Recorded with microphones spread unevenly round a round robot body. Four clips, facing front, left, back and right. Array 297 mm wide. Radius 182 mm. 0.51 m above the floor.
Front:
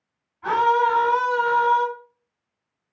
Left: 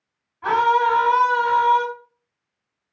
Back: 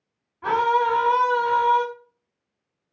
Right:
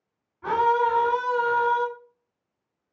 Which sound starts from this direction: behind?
A scream, at 0.4 s.